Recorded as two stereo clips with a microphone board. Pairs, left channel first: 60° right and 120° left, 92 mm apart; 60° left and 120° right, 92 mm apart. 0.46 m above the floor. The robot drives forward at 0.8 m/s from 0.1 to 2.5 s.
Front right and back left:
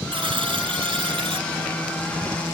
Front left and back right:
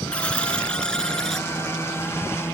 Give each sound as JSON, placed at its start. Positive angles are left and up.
{"t": 0.1, "sound": "a buzzer", "azimuth_deg": 135}